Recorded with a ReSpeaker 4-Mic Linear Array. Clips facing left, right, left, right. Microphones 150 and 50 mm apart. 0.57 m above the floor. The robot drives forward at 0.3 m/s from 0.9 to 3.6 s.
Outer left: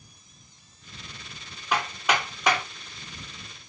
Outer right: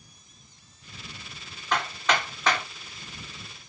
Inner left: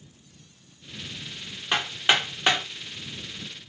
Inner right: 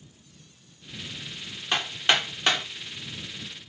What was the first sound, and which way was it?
Hammering, 10° left (ahead or behind).